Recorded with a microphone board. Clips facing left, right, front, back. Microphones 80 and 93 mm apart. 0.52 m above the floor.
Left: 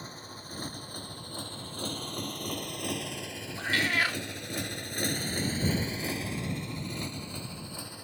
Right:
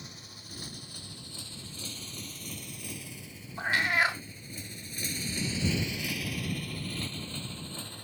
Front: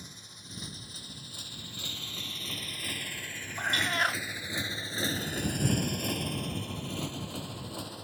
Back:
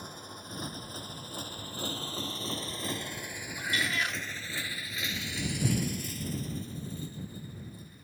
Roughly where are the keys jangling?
Behind left.